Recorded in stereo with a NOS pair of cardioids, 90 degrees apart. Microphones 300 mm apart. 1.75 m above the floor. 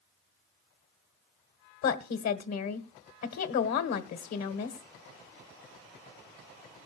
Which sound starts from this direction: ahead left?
A woman speaking, at 1.8 s.